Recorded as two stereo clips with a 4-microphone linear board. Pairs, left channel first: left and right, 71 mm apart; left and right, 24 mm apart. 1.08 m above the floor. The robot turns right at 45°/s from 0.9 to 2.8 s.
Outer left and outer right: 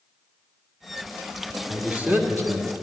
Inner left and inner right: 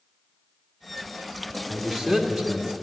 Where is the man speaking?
170° right, 1.6 m; by 2.7 s 125° right, 1.6 m.